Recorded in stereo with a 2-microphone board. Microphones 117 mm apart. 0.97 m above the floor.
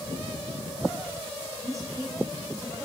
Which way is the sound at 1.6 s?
30° right (ahead or behind).